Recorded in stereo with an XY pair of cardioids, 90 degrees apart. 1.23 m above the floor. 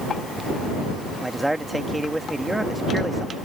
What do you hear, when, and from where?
1.2 s a man speaking: 10° right